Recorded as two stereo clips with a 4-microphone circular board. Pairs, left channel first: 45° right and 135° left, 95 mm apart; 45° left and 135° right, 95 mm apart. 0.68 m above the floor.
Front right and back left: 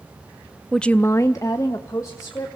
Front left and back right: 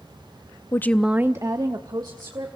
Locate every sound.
0.7 s a woman speaking: 40° left, 0.5 m; by 2.6 s 100° right, 2 m